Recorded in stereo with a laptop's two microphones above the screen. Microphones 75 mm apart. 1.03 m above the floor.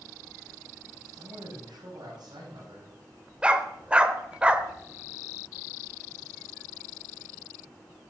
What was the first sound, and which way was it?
A man speaking, 75° right (ahead or behind).